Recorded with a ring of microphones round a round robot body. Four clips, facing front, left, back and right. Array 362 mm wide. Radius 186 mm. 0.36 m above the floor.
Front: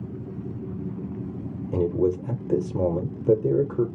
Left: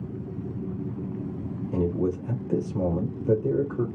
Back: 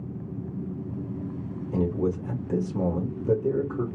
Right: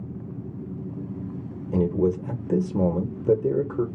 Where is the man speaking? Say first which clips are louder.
Right 4 dB, front 4 dB; 45° right, 1.1 m.